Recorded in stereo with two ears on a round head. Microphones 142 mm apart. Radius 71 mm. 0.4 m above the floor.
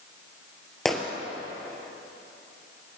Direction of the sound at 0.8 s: Centre (ahead or behind).